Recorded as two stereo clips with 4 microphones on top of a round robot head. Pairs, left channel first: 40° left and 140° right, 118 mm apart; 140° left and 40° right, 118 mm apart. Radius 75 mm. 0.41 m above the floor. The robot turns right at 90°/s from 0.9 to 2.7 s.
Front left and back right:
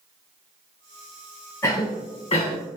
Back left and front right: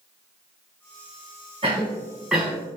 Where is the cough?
15° right, 1.9 m; by 2.6 s 70° left, 1.9 m.